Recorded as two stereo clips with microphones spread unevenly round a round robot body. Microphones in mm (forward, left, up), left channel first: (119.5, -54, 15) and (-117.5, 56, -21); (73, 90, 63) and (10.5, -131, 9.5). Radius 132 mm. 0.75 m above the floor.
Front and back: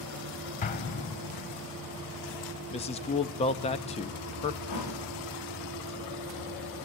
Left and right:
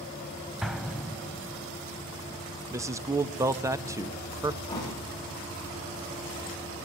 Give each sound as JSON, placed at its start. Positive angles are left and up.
{"t": 0.6, "sound": "an explosion", "azimuth_deg": 0, "distance_m": 0.6}
{"t": 2.7, "sound": "a man speaking", "azimuth_deg": -80, "distance_m": 0.9}
{"t": 4.7, "sound": "a thud", "azimuth_deg": 0, "distance_m": 9.5}